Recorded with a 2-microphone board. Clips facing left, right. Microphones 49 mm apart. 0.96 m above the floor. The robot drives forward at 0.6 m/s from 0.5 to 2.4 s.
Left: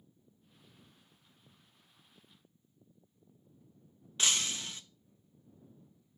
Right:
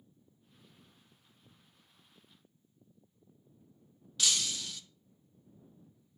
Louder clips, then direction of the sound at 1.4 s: Right 2 dB; 50° right (ahead or behind).